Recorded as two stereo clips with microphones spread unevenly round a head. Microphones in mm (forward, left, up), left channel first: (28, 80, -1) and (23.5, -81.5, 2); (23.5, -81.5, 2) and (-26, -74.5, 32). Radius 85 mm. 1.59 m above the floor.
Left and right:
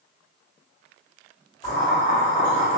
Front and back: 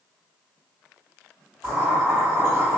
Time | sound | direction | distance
1.6 | boiling | 135° left | 1.5 m